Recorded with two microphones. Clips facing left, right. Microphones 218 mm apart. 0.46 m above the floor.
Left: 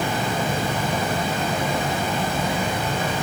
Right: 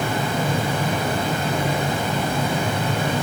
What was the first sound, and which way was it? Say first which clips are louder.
Running water: right 1 dB; 65° right (ahead or behind).